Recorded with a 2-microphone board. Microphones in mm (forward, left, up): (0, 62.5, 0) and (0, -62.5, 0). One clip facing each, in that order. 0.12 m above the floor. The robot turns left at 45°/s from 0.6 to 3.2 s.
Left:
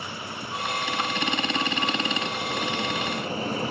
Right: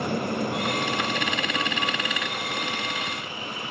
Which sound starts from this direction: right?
An aircraft, at 0.0 s.